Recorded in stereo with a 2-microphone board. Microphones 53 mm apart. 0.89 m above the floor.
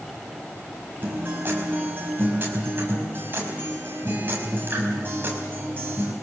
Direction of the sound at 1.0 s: 40° right (ahead or behind).